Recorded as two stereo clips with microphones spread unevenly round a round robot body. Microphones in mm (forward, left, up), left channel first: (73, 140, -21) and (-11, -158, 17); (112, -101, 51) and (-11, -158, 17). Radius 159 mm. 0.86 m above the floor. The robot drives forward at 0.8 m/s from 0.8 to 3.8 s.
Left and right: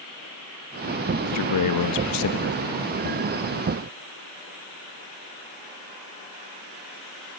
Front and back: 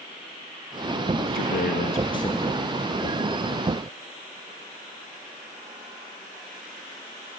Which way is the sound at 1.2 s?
40° left.